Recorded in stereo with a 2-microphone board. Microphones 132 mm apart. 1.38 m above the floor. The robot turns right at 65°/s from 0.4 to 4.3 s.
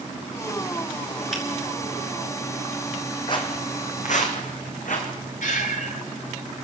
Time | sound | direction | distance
1.3 | a finger snap | 5° right (ahead or behind) | 7 m
3.3 | footsteps | 35° left (ahead or behind) | 2.5 m
5.4 | breathing | 70° left (ahead or behind) | 3 m